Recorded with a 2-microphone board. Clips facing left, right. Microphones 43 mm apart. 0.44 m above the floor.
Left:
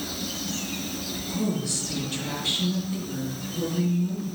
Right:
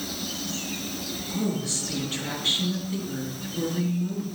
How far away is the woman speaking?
About 5.5 m.